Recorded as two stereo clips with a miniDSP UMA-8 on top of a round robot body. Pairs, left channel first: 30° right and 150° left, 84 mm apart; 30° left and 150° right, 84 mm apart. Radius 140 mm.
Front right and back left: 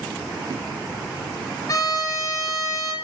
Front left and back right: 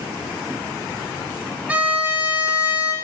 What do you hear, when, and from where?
1.7 s a violin: 75° right, 1.0 m